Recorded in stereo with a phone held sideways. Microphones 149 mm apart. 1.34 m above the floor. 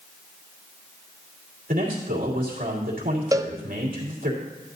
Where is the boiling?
No boiling in this recording.